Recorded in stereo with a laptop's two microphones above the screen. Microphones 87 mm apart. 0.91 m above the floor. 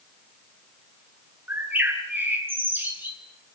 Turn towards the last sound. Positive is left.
turn(degrees=-25)  # may be behind; listen again after turning